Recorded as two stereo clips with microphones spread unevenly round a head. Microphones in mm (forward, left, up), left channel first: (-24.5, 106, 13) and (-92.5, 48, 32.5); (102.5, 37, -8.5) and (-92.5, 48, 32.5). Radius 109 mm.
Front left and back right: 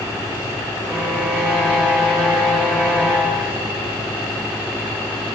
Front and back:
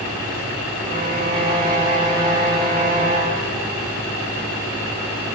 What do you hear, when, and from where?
0.9 s a violin: 145° left, 5.5 m